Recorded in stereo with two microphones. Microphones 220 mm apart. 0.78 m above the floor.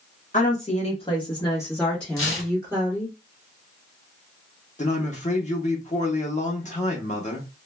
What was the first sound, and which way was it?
A woman speaking, 35° left (ahead or behind).